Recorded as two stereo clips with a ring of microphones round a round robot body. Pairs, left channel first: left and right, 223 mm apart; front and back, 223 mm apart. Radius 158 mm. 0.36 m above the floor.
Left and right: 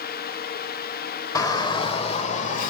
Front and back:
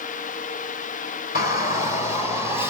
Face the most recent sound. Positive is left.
turn(degrees=60)